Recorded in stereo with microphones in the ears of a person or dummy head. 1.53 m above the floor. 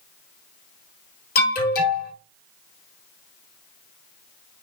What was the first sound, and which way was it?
An alarm, 50° left (ahead or behind).